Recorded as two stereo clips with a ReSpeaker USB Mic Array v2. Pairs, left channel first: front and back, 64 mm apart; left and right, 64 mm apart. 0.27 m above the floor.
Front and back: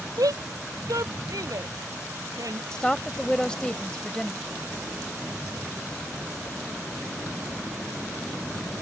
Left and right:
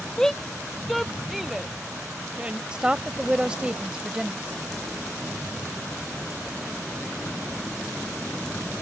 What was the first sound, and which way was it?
A shout, 170° left.